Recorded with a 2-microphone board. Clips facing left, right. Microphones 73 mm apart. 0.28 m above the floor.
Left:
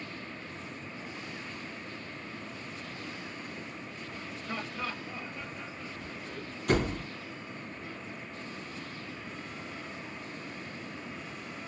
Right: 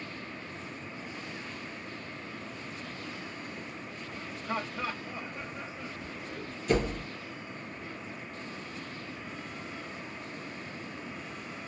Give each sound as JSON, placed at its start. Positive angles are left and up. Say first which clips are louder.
{"t": 4.5, "sound": "laughter", "louder": "right 3 dB", "side_deg": -20, "distance_m": 1.0}
{"t": 6.7, "sound": "a door slam", "louder": "even", "side_deg": 60, "distance_m": 2.5}